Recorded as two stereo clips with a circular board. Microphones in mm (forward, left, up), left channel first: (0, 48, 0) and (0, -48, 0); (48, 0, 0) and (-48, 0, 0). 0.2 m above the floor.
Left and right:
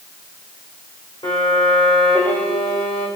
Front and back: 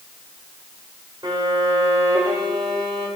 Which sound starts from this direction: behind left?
A violin, at 1.2 s.